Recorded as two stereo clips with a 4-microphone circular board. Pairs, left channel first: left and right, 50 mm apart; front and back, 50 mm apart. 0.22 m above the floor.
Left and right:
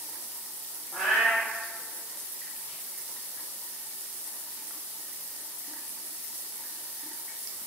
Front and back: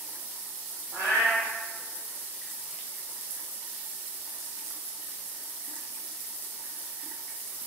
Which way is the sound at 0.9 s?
175° right.